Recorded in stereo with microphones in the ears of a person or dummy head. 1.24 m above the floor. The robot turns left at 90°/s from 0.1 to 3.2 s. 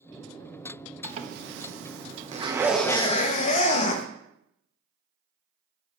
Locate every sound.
1.0 s a zipper: 20° right, 0.9 m; by 4.0 s 145° left, 0.9 m